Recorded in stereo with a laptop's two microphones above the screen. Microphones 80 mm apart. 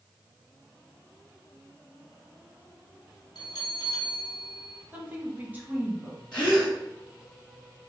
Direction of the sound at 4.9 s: 20° right (ahead or behind).